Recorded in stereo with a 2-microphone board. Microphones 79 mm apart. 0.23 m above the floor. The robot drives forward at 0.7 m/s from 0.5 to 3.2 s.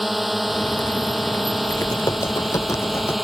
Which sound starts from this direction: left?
Typing on a keyboard, at 1.7 s.